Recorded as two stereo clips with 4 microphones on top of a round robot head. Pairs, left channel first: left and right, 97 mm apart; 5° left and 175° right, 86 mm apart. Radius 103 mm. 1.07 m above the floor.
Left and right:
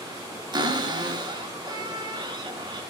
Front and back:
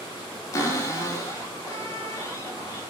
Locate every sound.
0.5 s a cupboard door: 45° right, 3 m